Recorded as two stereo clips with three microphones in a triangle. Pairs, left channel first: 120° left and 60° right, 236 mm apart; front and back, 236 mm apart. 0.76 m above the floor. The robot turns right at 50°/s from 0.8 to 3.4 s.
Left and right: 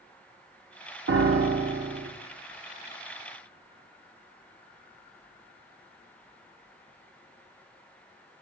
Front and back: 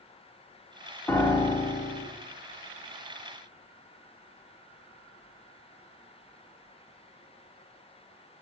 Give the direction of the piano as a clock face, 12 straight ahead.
3 o'clock.